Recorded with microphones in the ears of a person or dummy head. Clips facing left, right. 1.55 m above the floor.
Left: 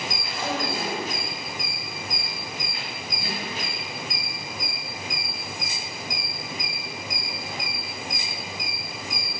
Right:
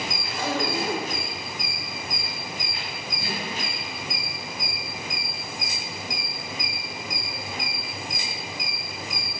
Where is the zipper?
55° right (ahead or behind), 4.5 m.